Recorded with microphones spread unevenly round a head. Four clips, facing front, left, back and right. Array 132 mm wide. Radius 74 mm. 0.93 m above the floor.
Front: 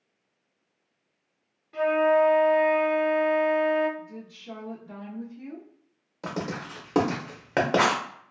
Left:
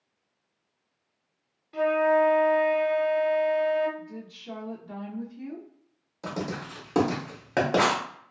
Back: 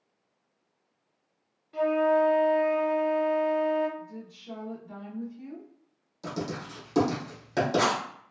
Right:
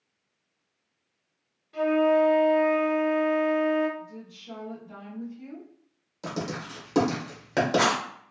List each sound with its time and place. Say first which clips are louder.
1.7 s a flute: even, front 2 dB; 35° left, 0.7 m
4.0 s a woman speaking: left 1 dB, front 1 dB; 70° left, 0.7 m
6.2 s writing: even, front 2 dB; 5° right, 1.1 m